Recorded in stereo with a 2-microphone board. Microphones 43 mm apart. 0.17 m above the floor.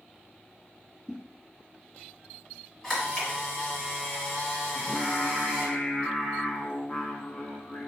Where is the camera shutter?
10° left (ahead or behind), 1.7 m.